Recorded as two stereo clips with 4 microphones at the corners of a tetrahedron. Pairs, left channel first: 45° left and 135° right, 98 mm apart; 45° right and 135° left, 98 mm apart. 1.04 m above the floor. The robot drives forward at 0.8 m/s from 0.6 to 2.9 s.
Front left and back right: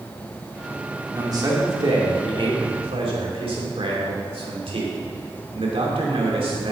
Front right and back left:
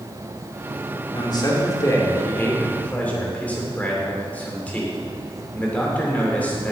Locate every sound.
1.1 s a man speaking: 85° right, 2 m; by 6.7 s 120° right, 2.5 m